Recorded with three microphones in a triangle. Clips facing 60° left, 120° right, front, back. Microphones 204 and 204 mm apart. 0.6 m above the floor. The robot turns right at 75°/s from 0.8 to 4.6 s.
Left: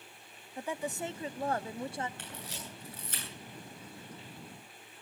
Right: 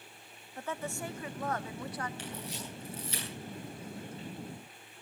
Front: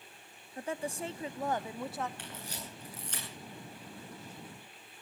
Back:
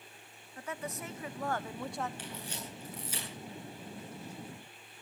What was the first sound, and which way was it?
A woman speaking, straight ahead.